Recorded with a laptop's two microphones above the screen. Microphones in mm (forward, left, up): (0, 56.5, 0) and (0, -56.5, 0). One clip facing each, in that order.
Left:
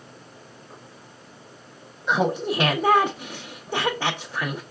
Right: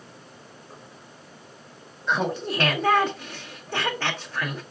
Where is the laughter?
20° left (ahead or behind), 0.5 m.